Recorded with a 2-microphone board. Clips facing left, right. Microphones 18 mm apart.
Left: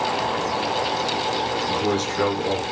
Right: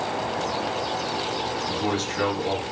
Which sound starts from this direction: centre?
A man speaking, at 1.7 s.